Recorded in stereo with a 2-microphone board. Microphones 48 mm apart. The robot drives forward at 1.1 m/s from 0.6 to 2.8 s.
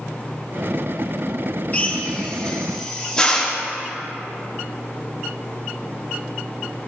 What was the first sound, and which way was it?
A drill, 30° left (ahead or behind).